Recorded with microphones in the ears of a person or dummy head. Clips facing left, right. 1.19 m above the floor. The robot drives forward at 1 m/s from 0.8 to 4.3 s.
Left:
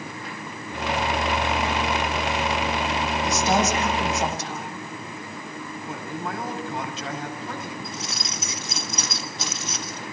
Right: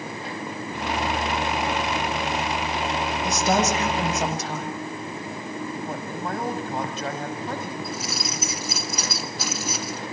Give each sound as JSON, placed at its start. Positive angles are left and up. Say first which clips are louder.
{"t": 3.2, "sound": "a woman speaking", "louder": "even", "side_deg": -70, "distance_m": 8.0}
{"t": 5.9, "sound": "a man speaking", "louder": "right 2 dB", "side_deg": -40, "distance_m": 6.0}
{"t": 7.8, "sound": "keys jangling", "louder": "right 4 dB", "side_deg": 0, "distance_m": 1.3}